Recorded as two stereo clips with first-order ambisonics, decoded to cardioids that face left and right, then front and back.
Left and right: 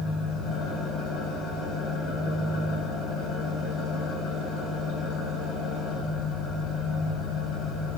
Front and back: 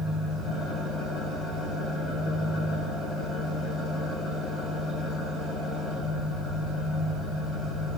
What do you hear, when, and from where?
0.0 s an engine running: 60° left, 3 m